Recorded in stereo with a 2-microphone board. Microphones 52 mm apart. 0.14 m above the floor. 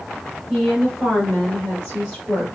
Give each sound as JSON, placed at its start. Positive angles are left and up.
{"t": 0.5, "sound": "a woman speaking", "side_deg": 0, "distance_m": 1.4}